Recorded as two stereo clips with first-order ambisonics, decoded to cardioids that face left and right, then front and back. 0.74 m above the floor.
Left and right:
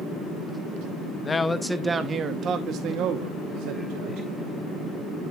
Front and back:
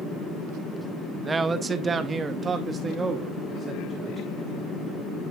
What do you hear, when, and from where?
1.2 s a man speaking: 130° left, 0.7 m; by 4.3 s 105° right, 1.6 m